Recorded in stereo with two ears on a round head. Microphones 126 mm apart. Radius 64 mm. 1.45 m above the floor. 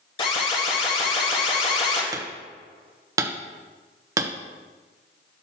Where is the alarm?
35° left (ahead or behind), 2.5 m.